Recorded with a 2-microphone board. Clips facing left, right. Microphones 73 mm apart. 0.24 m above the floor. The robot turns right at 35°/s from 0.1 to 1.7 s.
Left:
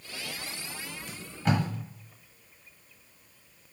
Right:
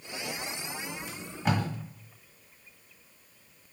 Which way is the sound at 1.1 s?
10° right (ahead or behind).